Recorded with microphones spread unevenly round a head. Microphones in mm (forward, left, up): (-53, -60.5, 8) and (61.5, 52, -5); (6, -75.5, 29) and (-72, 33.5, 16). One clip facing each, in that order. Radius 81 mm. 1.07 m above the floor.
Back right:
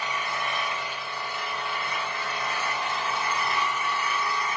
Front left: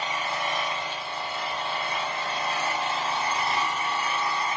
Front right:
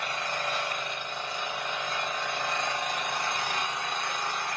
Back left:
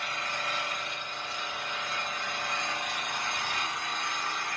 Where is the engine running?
20° right, 3 m.